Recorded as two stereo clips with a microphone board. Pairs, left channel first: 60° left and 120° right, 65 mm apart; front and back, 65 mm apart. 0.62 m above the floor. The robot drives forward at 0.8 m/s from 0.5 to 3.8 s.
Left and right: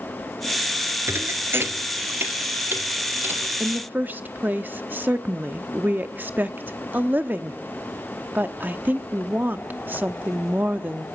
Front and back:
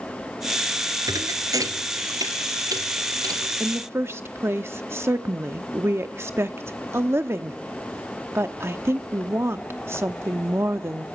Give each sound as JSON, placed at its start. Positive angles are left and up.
{"t": 1.1, "sound": "a thud", "azimuth_deg": -170, "distance_m": 1.3}
{"t": 3.6, "sound": "a woman speaking", "azimuth_deg": -160, "distance_m": 0.8}